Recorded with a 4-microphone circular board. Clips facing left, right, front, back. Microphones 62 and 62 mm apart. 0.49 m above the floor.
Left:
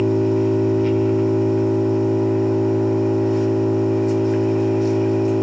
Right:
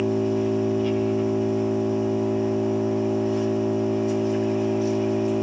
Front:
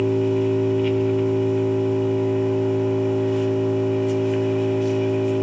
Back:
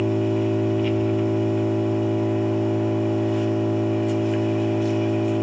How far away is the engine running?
About 1.1 m.